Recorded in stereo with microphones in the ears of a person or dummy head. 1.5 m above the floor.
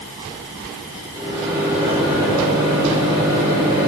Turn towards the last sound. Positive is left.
turn(degrees=-20)  # may be behind; listen again after turning